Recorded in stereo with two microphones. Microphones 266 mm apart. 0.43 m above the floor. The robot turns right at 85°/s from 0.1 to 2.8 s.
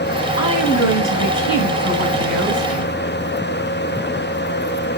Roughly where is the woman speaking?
Ahead left.